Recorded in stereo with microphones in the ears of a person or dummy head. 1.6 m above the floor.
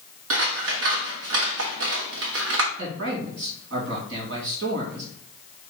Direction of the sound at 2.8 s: 70° right (ahead or behind).